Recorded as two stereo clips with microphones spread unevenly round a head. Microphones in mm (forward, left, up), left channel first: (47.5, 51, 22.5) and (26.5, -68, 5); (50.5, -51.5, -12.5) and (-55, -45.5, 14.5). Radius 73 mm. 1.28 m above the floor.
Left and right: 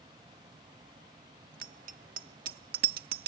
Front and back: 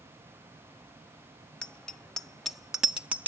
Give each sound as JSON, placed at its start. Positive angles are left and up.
{"t": 1.6, "sound": "a bicycle bell", "azimuth_deg": -85}